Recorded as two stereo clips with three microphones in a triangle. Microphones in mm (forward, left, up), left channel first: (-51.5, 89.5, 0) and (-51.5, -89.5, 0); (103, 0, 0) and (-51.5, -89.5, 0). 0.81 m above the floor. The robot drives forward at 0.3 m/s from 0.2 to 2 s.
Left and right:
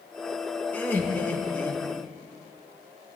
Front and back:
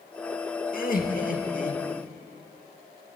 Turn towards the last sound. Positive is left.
turn(degrees=15)